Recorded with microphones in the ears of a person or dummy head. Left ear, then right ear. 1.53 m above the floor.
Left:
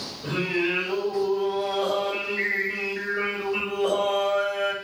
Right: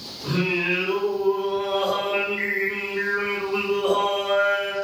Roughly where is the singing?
Left.